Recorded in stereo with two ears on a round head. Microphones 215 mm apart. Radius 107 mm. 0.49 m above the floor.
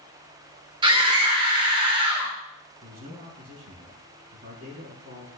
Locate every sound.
0.8 s a scream: 20° right (ahead or behind), 1.1 m
2.8 s a man speaking: 40° right (ahead or behind), 5 m